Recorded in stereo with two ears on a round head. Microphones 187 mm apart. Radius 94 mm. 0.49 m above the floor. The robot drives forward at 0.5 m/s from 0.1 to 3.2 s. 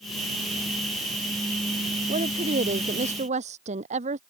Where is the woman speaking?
35° right (ahead or behind).